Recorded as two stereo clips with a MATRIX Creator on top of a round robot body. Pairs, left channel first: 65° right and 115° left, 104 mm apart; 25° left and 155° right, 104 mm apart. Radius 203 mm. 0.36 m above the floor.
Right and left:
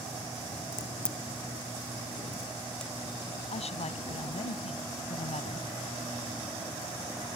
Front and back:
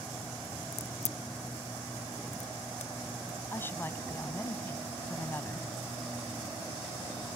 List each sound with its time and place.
0.7 s a crack: 15° left
3.5 s a woman speaking: 50° right